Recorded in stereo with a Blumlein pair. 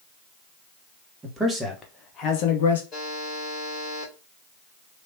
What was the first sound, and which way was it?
A man speaking, 15° right.